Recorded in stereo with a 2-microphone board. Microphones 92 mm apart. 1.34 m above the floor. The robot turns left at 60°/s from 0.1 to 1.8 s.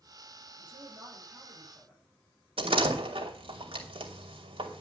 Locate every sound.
0.6 s a woman speaking: 110° right, 6.5 m; by 2.0 s straight behind, 6.5 m
2.6 s a door slam: 85° right, 3 m